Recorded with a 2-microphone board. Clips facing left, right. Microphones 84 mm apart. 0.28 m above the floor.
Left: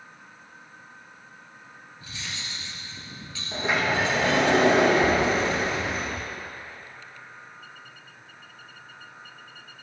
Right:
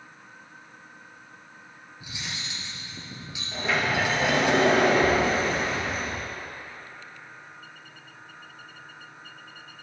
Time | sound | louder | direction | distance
2.0 | cutlery clinking | right 1 dB | 15° right (ahead or behind) | 3 m
3.5 | a sliding door | left 1 dB | 25° left (ahead or behind) | 4.5 m